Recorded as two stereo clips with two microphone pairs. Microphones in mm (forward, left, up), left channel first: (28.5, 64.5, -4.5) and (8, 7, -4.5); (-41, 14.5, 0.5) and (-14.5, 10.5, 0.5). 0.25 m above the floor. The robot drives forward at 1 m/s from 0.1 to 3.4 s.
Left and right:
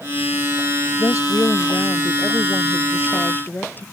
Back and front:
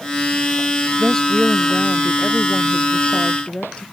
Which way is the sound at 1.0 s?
105° left.